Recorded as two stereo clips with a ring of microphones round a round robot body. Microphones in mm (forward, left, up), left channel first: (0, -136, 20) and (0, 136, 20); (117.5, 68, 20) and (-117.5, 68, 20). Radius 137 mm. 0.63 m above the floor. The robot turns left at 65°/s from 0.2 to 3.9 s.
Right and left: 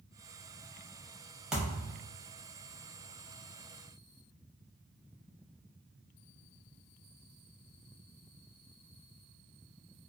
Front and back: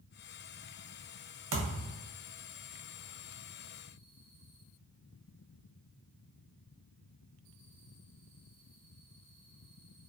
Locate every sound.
1.5 s a thud: straight behind, 0.8 m; by 2.1 s 140° left, 0.8 m